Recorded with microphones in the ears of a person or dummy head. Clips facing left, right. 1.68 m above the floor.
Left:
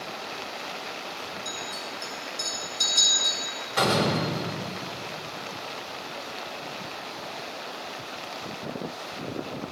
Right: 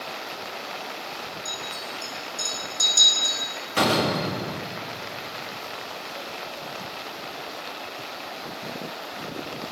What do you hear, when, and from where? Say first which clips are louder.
1.4 s a clink: right 1 dB; 50° right (ahead or behind), 7 m
3.8 s a door slam: right 1 dB; 40° right (ahead or behind), 2 m